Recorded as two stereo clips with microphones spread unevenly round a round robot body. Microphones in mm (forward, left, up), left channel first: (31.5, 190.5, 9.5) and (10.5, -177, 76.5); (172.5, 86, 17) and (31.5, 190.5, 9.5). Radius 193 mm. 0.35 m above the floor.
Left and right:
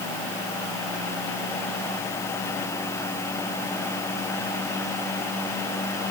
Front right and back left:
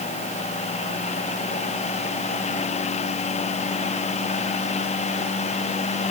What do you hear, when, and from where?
Only background noise.